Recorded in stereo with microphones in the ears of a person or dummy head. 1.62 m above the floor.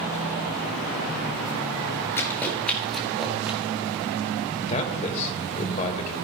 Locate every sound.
2.2 s running footsteps: 15° left (ahead or behind), 1.8 m; by 3.6 s 10° right (ahead or behind), 2.5 m
4.6 s a man speaking: 35° left (ahead or behind), 1.9 m